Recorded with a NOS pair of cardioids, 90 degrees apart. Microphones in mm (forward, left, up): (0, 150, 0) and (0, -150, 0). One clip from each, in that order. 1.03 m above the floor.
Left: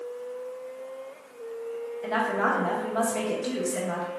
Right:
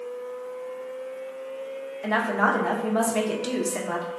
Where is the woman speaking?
20° right, 0.9 m.